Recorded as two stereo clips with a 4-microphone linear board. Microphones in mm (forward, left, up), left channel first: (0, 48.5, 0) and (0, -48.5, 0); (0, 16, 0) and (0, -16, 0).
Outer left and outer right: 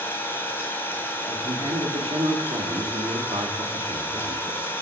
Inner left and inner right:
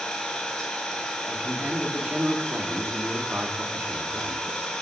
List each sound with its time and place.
0.0 s an engine running: 25° left (ahead or behind), 2.5 m
1.3 s a man speaking: 80° right, 3 m